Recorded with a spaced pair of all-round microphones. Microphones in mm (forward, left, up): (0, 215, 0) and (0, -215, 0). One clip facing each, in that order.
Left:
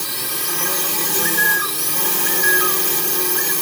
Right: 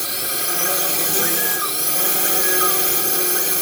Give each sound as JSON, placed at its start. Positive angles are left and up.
{"t": 0.0, "sound": "a drone", "side_deg": 10}
{"t": 1.2, "sound": "a bird", "side_deg": 5}